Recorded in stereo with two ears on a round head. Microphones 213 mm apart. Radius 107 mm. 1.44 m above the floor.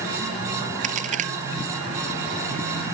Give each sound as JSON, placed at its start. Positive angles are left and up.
{"t": 0.8, "sound": "a crack", "side_deg": -30}